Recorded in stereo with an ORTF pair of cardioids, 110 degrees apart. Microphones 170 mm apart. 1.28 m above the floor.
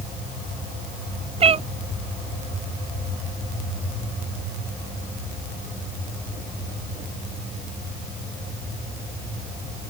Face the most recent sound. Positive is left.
turn(degrees=-35)